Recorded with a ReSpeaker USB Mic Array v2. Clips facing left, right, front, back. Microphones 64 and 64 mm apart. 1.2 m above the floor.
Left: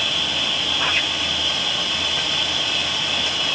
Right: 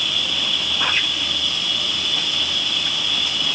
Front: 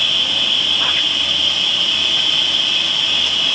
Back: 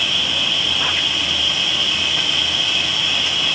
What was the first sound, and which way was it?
An insect, 100° left.